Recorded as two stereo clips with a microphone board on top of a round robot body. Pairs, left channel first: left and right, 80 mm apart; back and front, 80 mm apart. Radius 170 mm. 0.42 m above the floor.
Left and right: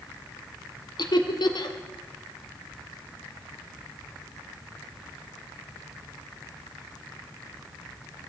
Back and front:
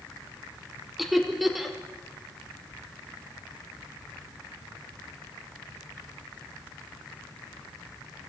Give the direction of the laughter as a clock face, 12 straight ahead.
9 o'clock.